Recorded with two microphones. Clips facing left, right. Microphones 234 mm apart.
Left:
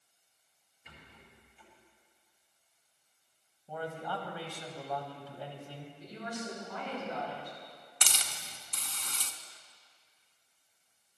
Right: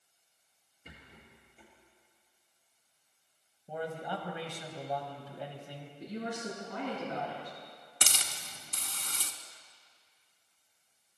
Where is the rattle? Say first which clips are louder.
Right 2 dB; 50° right (ahead or behind), 4 m.